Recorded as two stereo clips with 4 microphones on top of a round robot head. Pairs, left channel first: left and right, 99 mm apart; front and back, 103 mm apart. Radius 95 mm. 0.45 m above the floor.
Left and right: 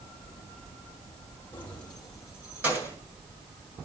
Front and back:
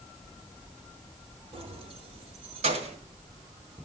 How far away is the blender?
I don't hear a blender.